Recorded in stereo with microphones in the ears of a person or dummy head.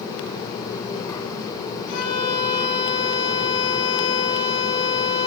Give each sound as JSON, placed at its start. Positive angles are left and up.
{"t": 1.9, "sound": "a violin", "side_deg": 60, "distance_m": 6.5}